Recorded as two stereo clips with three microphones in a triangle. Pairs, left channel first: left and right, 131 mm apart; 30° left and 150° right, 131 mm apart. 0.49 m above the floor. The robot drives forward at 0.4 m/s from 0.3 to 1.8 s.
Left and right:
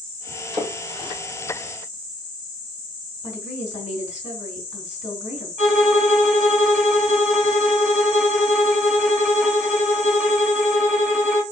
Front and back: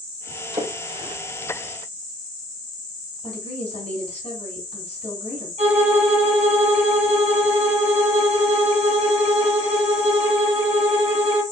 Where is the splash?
145° right, 1.7 m; by 1.2 s 150° right, 1.8 m.